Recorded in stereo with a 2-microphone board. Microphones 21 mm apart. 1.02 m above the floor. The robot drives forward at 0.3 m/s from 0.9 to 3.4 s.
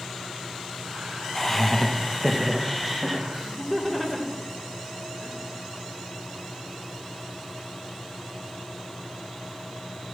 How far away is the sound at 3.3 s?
About 2.5 m.